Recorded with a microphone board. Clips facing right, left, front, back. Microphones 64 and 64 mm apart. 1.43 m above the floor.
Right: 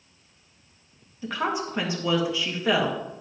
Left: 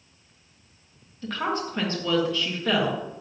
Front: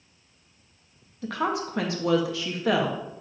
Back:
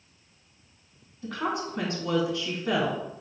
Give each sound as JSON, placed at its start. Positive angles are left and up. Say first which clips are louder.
{"t": 1.2, "sound": "a woman speaking", "louder": "even, front 3 dB", "azimuth_deg": -10, "distance_m": 1.8}